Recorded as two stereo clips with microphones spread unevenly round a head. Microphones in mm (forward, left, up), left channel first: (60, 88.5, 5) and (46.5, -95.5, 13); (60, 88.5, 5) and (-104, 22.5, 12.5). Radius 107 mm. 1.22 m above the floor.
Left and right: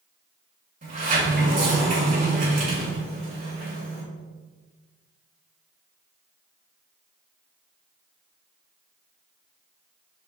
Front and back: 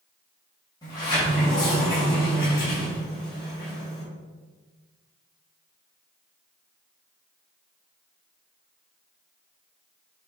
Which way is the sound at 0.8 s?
50° right.